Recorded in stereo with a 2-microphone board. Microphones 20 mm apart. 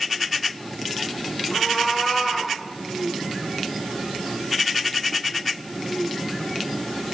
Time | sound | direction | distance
1.5 | a cat meowing | 35° left (ahead or behind) | 1.6 m